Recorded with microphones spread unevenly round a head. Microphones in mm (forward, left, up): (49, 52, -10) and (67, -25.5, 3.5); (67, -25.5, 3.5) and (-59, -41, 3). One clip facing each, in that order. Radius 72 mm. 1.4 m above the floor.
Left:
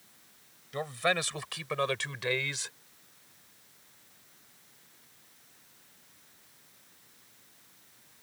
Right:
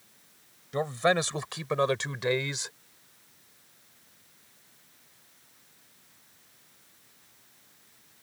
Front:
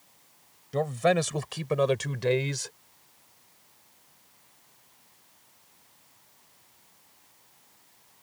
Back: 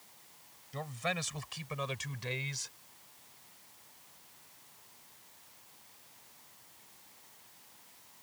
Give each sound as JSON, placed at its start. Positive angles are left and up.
{"t": 0.7, "sound": "a man speaking", "azimuth_deg": -15}